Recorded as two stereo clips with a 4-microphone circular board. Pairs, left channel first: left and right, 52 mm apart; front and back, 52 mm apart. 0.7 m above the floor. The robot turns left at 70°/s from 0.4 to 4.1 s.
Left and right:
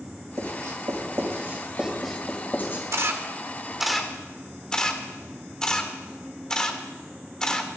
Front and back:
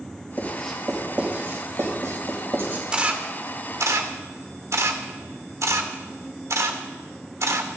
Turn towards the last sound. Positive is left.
turn(degrees=165)